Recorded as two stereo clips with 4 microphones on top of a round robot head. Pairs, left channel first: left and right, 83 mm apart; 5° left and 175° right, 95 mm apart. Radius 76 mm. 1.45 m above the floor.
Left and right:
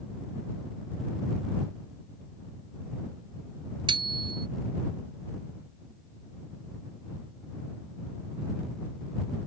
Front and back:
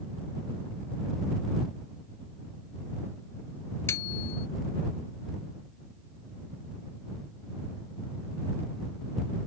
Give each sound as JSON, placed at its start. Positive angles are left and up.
{"t": 3.9, "sound": "a bicycle bell", "azimuth_deg": -65}